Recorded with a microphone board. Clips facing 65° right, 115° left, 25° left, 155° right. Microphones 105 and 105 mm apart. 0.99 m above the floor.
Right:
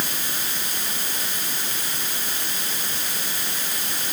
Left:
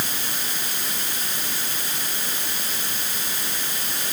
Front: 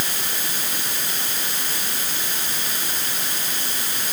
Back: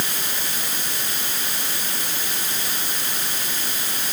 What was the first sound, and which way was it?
Only background noise.